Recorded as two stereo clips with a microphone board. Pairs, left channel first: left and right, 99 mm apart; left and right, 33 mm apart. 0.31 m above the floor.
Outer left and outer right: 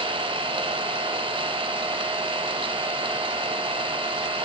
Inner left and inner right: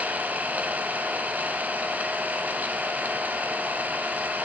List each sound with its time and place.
0.0 s an engine running: 60° right (ahead or behind), 0.8 m